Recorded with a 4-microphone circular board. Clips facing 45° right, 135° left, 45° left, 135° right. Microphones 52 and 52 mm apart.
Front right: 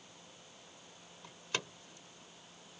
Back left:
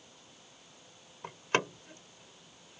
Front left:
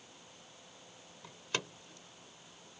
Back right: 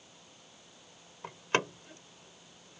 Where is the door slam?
Straight behind.